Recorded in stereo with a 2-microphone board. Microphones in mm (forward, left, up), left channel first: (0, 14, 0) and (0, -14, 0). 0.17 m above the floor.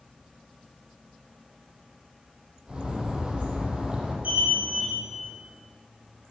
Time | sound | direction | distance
2.7 | a bird | 35° right (ahead or behind) | 6.5 m
4.2 | an alarm | 55° right (ahead or behind) | 6.5 m